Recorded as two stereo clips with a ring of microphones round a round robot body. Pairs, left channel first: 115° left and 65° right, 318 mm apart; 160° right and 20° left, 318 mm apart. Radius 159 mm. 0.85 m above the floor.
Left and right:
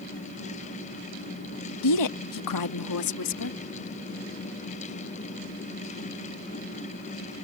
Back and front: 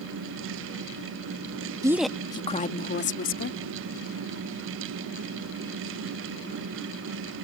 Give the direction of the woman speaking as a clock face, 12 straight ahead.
9 o'clock.